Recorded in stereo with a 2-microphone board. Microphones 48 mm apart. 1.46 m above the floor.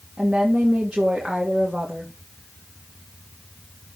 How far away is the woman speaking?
About 2.5 m.